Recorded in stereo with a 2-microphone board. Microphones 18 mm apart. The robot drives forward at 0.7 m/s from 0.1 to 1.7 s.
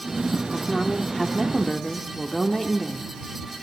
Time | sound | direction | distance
0.5 | a woman speaking | 15° left (ahead or behind) | 1.0 m